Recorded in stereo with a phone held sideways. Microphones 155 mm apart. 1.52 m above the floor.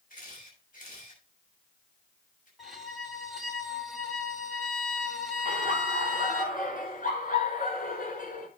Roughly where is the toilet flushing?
I don't hear a toilet flushing.